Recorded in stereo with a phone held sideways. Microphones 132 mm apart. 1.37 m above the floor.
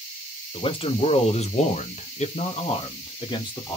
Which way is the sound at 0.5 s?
40° left (ahead or behind).